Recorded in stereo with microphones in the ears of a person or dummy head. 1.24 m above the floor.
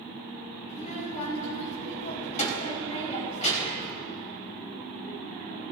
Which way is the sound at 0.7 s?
50° left (ahead or behind).